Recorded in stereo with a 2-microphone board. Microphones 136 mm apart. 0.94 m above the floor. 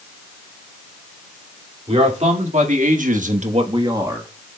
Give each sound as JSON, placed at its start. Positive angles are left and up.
{"t": 1.9, "sound": "a man speaking", "side_deg": -50, "distance_m": 2.5}